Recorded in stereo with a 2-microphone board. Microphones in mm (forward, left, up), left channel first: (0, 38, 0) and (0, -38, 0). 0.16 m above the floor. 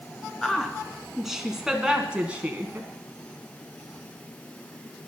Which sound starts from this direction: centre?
A woman speaking, at 0.4 s.